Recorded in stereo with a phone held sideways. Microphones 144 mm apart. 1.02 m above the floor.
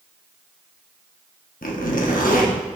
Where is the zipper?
70° left (ahead or behind), 1.2 m.